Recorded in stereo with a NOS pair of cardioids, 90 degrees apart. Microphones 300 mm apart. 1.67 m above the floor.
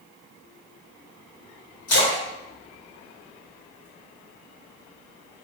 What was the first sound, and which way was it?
A splash, 60° left.